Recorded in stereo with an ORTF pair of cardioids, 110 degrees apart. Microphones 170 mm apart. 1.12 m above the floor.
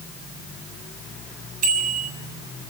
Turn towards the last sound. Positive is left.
turn(degrees=-55)